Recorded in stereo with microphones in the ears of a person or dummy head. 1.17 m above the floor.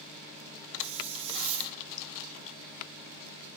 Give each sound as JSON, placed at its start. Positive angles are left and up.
{"t": 0.8, "sound": "a hiss", "side_deg": -35, "distance_m": 2.0}